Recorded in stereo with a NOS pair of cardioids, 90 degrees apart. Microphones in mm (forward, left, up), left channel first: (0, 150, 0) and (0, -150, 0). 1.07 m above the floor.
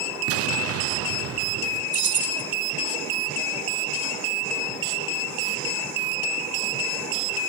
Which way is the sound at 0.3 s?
50° right.